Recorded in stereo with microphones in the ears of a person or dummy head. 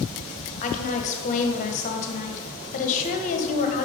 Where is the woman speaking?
45° left (ahead or behind), 1.1 m.